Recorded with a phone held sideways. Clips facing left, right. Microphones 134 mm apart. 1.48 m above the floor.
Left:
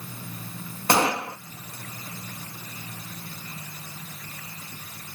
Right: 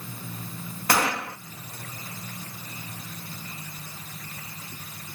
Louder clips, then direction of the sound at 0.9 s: Left 3 dB; 25° left (ahead or behind).